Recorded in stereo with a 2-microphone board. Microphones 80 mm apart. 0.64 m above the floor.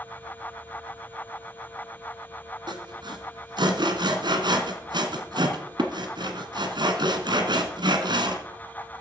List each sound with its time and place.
2.7 s sawing: 65° right (ahead or behind), 1.8 m